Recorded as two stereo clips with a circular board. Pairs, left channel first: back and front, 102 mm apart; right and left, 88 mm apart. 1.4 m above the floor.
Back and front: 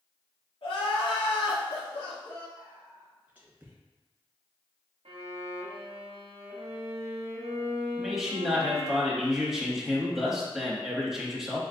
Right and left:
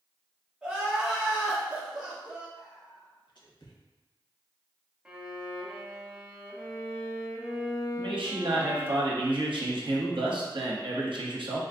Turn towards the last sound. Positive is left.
turn(degrees=85)